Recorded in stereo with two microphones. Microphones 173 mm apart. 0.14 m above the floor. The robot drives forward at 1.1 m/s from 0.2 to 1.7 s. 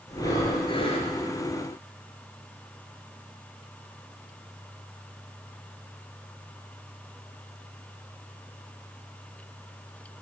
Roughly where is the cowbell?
No cowbell in this recording.